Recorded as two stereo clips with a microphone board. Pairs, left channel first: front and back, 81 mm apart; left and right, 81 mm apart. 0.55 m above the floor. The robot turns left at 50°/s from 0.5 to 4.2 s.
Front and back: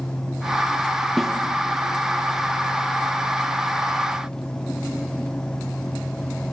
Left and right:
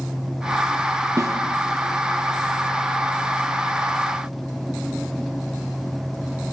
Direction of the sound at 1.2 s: 90° right.